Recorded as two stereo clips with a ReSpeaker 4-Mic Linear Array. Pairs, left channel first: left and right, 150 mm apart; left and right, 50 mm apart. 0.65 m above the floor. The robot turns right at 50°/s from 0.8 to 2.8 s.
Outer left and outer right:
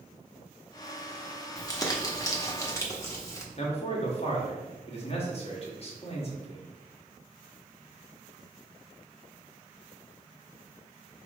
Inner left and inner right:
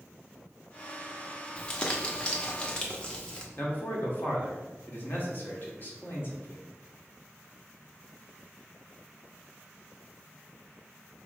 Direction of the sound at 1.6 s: 20° left (ahead or behind).